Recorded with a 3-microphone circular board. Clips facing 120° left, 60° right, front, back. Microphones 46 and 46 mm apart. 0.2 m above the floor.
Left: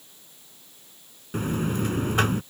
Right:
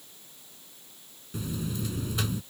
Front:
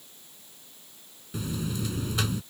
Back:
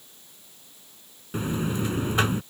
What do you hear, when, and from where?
1.3 s a buzzer: 135° left